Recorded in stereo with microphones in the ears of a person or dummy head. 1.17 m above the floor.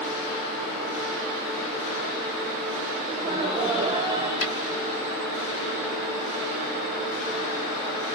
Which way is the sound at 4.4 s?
65° left (ahead or behind).